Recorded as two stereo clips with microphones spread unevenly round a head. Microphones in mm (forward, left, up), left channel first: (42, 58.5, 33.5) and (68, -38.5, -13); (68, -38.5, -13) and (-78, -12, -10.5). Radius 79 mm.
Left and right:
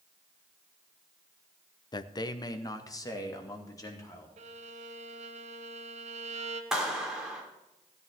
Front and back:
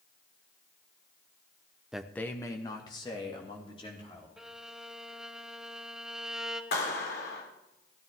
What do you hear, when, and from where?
1.9 s a man speaking: 85° left, 0.7 m; by 4.3 s 50° left, 4 m
4.4 s a violin: 105° right, 0.9 m
6.7 s a clap: 15° left, 3.5 m